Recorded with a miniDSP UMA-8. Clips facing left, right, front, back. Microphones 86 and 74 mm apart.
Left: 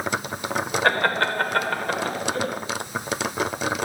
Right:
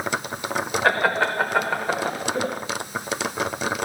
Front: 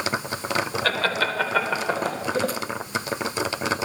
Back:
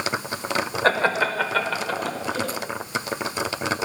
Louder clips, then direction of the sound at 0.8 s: Right 1 dB, back 7 dB; 175° right.